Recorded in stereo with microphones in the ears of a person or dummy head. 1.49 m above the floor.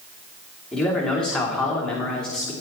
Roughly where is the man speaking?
Centre.